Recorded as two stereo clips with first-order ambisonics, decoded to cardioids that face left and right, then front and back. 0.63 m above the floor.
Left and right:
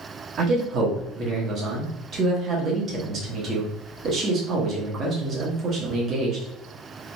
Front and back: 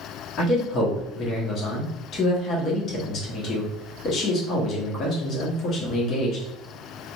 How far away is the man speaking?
About 0.9 m.